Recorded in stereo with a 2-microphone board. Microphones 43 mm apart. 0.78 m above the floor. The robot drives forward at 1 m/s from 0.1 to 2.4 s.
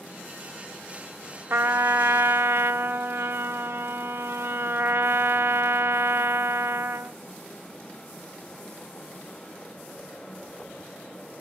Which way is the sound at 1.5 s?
55° right (ahead or behind).